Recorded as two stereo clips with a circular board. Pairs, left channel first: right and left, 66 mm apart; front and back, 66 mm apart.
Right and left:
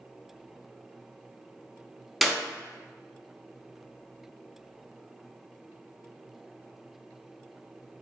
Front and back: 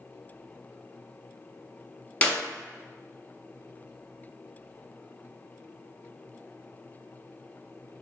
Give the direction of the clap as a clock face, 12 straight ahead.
12 o'clock.